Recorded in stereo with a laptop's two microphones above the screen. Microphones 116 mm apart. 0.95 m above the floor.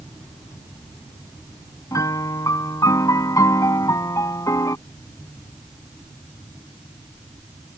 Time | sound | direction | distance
1.9 | a piano | 30° left (ahead or behind) | ?